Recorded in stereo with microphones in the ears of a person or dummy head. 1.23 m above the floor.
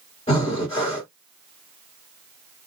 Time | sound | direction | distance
0.3 | breathing | 35° left (ahead or behind) | 1.1 m